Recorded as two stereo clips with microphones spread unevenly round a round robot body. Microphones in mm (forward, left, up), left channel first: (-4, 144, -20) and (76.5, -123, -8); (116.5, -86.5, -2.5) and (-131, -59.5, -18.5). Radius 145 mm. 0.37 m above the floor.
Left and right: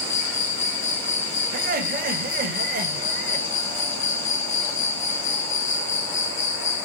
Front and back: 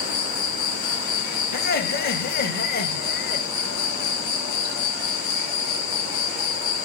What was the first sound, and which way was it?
An insect, 55° left.